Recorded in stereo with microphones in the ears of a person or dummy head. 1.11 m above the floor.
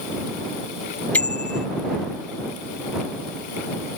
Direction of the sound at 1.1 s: 10° left (ahead or behind).